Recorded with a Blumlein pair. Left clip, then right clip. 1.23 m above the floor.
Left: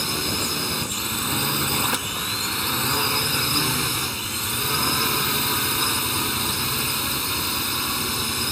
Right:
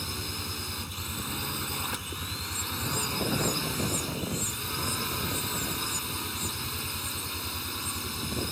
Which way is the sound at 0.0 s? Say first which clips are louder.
Left 10 dB; 60° left.